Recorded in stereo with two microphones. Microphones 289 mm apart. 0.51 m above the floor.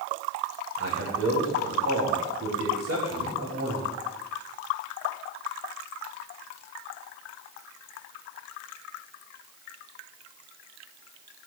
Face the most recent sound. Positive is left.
turn(degrees=-60)  # may be behind; listen again after turning